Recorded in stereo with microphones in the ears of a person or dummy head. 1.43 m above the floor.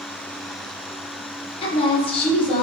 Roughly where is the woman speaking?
Left.